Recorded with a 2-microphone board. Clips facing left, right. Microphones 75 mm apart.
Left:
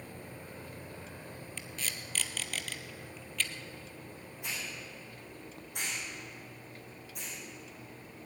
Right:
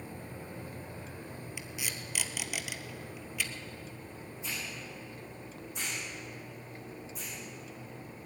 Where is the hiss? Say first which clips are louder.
Even; 55° left (ahead or behind), 8 m.